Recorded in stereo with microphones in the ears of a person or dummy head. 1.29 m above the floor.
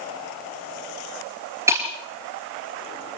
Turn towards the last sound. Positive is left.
turn(degrees=-15)  # may be behind; listen again after turning